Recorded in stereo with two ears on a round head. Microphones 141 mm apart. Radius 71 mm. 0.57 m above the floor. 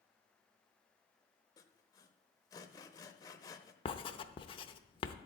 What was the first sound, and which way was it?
Sawing, 20° left (ahead or behind).